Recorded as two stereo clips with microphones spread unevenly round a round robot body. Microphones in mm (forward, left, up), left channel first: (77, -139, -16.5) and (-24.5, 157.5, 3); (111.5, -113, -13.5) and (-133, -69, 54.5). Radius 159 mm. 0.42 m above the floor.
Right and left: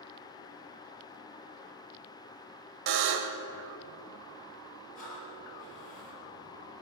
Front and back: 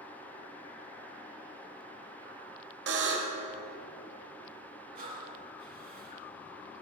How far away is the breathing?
About 3 m.